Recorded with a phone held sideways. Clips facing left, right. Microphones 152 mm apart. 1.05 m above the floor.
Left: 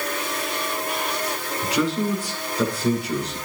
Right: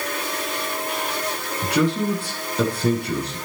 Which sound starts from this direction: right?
A man speaking, at 1.6 s.